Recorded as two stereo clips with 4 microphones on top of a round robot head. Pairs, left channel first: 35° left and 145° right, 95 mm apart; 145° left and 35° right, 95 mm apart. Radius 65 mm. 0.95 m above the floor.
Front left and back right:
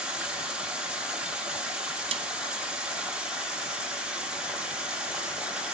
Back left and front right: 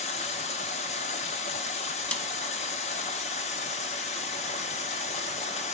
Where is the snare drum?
140° right, 0.8 m.